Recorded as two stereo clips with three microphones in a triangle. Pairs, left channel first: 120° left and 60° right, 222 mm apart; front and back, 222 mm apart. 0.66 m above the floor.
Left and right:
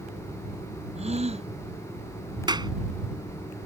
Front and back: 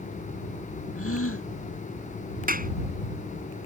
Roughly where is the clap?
Behind right.